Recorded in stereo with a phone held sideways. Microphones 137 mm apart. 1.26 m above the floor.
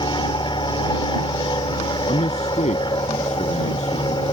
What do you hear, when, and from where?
0.0 s an aircraft: 35° left (ahead or behind)
2.1 s a man speaking: 55° left (ahead or behind)